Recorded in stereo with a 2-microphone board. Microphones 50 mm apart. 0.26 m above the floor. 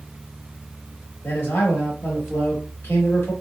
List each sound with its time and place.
1.2 s a man speaking: 50° left (ahead or behind), 1.4 m